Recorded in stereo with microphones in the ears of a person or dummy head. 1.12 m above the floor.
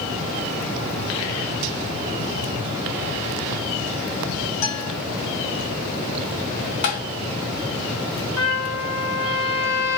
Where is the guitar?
45° left (ahead or behind), 3 m.